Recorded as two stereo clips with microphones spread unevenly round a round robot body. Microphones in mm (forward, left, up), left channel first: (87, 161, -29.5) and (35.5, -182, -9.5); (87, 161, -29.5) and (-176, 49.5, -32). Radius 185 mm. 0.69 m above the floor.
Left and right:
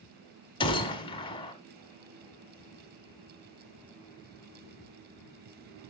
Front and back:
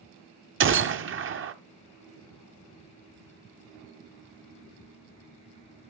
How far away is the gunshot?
About 0.9 m.